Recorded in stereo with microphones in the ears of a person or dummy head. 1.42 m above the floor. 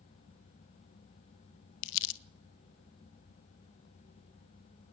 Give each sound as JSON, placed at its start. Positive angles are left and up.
{"t": 1.8, "sound": "crumpling", "side_deg": 70, "distance_m": 0.8}